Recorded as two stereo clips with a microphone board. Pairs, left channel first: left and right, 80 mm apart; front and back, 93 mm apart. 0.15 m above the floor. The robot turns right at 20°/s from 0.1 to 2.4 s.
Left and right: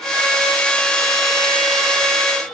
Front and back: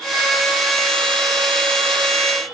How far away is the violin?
No violin in this recording.